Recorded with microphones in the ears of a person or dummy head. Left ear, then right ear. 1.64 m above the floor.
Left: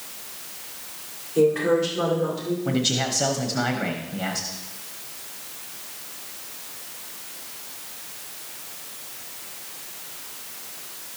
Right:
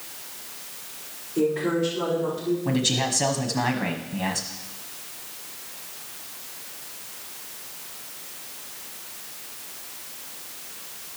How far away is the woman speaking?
About 5.5 m.